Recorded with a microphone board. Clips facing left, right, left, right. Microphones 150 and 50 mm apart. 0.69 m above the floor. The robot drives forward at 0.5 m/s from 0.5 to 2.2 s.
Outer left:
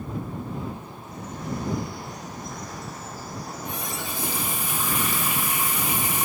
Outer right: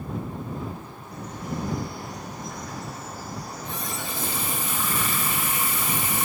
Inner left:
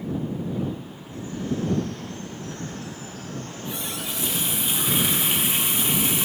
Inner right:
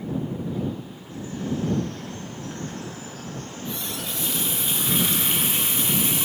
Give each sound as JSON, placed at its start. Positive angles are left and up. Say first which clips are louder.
{"t": 1.0, "sound": "a bird", "louder": "outer left 1 dB, inner left 1 dB", "side_deg": -70, "distance_m": 3.0}
{"t": 3.5, "sound": "a running tap", "louder": "outer left 1 dB, even", "side_deg": 15, "distance_m": 0.7}